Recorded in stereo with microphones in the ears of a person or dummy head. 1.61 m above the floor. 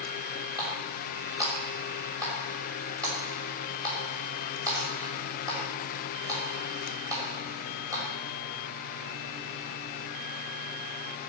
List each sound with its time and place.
0.6 s a running tap: 25° right (ahead or behind), 6 m